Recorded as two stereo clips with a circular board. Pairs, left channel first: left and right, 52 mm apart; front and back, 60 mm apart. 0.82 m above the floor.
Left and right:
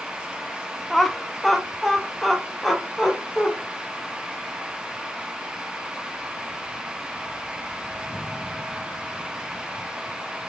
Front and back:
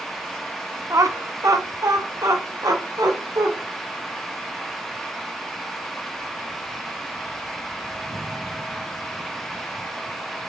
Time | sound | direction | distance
0.9 | laughter | 175° left | 0.7 m